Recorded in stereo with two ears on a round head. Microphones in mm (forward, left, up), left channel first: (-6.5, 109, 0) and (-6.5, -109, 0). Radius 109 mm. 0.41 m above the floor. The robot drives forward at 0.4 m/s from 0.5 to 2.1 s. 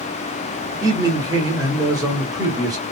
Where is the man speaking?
15° right (ahead or behind), 0.8 m.